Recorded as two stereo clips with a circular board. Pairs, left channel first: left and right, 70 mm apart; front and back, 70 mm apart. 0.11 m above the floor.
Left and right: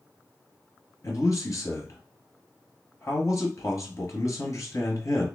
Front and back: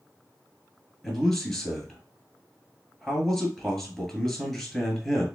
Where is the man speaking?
80° left, 1.6 m.